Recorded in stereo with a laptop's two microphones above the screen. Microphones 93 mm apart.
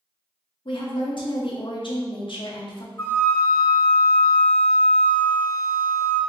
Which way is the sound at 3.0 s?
25° left (ahead or behind).